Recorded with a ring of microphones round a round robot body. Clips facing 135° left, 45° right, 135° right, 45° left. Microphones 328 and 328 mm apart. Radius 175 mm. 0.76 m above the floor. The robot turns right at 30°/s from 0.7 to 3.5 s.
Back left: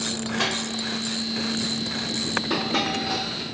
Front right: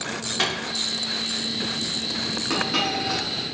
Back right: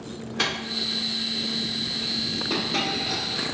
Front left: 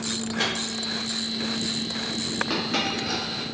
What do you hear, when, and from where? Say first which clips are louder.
0.4 s a microwave: back left 1 dB, front left 1 dB; 75° right, 0.8 m
2.5 s a dropped coin: even, back right 1 dB; 10° left, 0.9 m; by 3.4 s 35° left, 0.9 m